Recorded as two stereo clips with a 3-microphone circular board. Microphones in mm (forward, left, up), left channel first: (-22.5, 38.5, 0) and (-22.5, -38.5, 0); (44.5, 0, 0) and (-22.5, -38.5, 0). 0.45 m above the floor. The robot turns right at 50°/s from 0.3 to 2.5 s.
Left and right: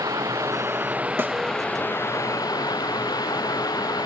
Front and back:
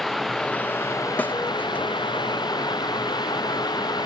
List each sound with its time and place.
0.0 s running water: 55° right; by 4.1 s 55° left
1.2 s a snare drum: 35° right; by 1.3 s 25° right